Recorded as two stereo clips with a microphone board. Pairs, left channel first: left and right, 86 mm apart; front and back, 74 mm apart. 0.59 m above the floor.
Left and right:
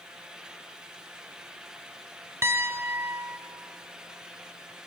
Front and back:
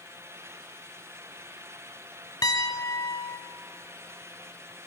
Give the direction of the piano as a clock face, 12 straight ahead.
1 o'clock.